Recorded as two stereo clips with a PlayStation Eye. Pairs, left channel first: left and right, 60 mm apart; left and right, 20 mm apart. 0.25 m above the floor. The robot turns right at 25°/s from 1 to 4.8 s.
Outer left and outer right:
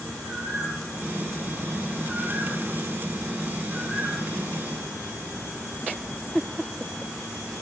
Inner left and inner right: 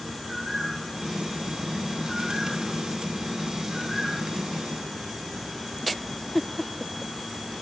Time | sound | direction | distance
0.2 | a bird | 65° left (ahead or behind) | 6.5 m